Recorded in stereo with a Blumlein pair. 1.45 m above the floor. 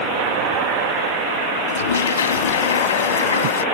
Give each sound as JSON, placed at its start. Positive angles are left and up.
{"t": 1.7, "sound": "a toilet flushing", "azimuth_deg": 65}